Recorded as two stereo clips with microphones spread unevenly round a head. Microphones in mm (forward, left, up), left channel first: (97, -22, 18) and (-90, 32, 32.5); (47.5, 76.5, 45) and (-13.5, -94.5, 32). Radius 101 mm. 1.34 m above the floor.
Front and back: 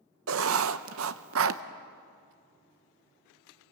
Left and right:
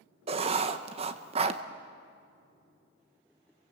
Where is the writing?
175° right, 0.8 m.